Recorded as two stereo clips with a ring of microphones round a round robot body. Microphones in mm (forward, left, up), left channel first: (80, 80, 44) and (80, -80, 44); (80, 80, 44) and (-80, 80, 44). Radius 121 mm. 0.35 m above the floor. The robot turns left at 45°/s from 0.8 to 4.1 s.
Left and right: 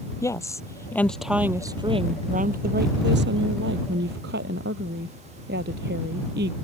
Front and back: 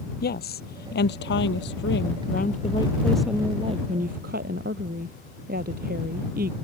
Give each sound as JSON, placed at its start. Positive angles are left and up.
{"t": 0.2, "sound": "a woman speaking", "azimuth_deg": 20}